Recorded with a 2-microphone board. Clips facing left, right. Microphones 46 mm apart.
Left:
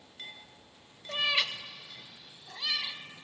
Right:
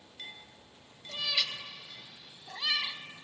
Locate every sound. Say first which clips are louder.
1.1 s a cat meowing: left 4 dB; 40° left (ahead or behind), 0.6 m; by 3.0 s 30° right (ahead or behind), 1.2 m